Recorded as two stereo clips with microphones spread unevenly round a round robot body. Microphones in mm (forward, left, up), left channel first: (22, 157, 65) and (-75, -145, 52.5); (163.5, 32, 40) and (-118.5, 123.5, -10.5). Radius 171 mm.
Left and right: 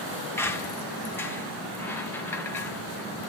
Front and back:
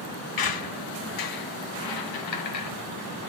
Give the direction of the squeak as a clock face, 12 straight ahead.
12 o'clock.